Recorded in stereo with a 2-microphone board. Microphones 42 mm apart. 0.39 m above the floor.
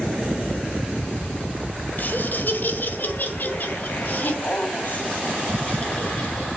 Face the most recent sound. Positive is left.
turn(degrees=40)  # may be behind; listen again after turning